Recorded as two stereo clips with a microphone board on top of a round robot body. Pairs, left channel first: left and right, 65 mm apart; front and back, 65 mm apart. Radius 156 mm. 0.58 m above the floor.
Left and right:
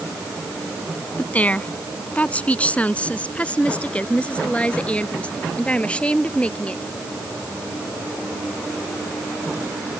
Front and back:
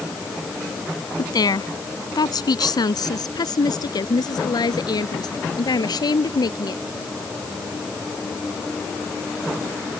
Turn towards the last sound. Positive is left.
turn(degrees=15)